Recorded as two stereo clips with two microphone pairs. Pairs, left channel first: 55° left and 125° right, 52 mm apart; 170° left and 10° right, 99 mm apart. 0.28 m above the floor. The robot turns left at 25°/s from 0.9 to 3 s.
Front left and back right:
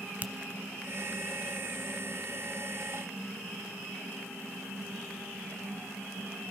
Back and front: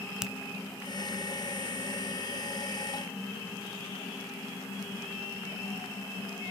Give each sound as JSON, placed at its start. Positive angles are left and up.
{"t": 0.2, "sound": "a finger snap", "azimuth_deg": -90, "distance_m": 1.2}